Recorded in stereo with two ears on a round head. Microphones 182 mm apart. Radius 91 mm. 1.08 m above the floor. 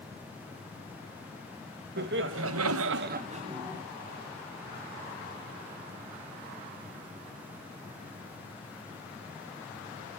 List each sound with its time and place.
2.0 s laughter: 50° right (ahead or behind), 1.0 m; by 3.8 s 15° right (ahead or behind), 1.0 m